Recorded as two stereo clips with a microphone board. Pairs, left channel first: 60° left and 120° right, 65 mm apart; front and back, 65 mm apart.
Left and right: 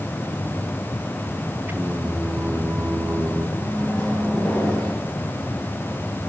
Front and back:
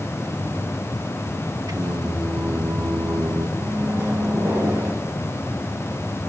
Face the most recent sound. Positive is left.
turn(degrees=130)